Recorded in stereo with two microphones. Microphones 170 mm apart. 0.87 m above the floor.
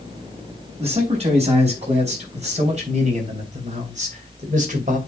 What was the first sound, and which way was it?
A man speaking, 35° right (ahead or behind).